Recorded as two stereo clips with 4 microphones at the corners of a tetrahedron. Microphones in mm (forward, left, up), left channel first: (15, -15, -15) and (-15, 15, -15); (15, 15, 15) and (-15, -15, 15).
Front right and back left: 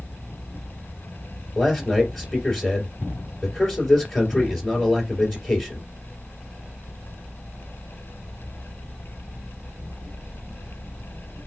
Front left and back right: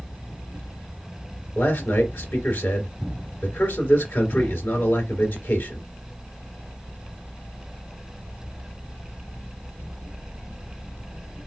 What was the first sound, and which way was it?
A man speaking, 30° left.